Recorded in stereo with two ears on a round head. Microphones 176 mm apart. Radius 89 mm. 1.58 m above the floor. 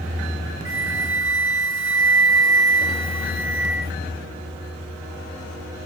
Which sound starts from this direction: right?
A flute, at 0.7 s.